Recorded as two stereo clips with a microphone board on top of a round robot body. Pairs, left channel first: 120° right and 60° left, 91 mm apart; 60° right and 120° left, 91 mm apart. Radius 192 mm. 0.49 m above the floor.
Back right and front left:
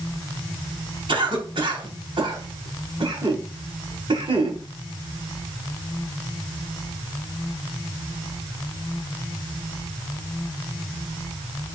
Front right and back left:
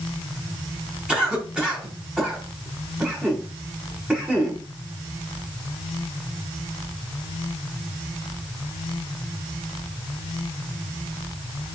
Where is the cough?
40° left, 7 m.